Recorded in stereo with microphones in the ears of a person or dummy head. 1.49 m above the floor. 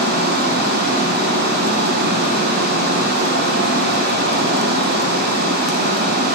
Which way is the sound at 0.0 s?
50° right (ahead or behind).